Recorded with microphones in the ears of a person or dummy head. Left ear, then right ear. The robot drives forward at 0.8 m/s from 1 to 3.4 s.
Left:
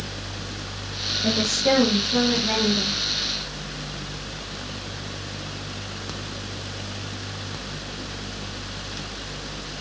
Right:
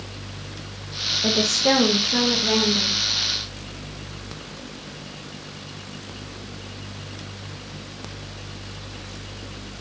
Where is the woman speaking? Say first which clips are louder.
Right 2 dB; 40° right (ahead or behind), 1.7 m; by 3.0 s 20° right (ahead or behind), 3 m.